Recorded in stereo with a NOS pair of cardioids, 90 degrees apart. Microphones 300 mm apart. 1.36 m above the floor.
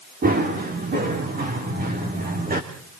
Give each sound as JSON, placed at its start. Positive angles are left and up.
{"t": 0.2, "sound": "running footsteps", "azimuth_deg": -30, "distance_m": 8.0}